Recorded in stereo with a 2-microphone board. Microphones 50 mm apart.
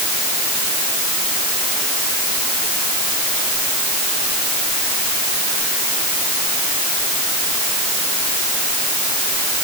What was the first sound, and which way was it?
Only background noise.